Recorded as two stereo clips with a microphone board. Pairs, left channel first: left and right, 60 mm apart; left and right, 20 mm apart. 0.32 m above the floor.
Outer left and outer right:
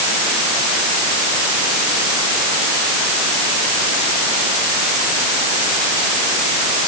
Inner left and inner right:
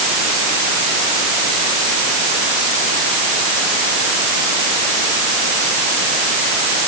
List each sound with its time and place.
Only background noise.